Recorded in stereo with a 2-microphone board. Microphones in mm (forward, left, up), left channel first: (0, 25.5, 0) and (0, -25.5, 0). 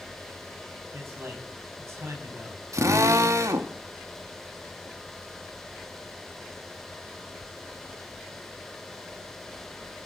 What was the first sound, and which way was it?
A man speaking, 65° right (ahead or behind).